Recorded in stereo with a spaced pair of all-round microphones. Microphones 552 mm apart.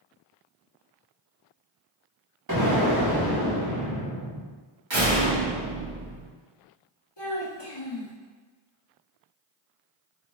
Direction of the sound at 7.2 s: 50° left (ahead or behind).